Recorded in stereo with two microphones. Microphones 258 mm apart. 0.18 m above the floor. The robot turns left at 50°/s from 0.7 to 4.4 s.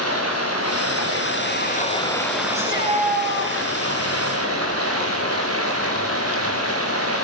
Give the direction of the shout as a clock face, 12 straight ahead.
4 o'clock.